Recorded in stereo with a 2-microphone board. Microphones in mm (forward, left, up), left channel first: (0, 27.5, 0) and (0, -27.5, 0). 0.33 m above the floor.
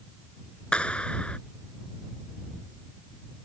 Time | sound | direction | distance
0.7 | a clap | 20° left (ahead or behind) | ?